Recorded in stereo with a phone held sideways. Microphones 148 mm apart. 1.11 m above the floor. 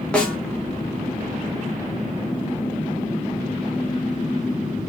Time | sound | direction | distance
0.1 | a snare drum | 10° left (ahead or behind) | 1.5 m